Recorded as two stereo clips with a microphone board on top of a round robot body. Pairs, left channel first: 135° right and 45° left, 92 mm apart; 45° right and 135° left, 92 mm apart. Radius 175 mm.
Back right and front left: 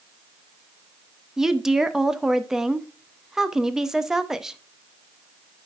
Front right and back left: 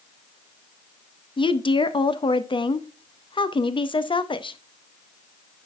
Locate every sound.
1.4 s a woman speaking: 40° right, 0.9 m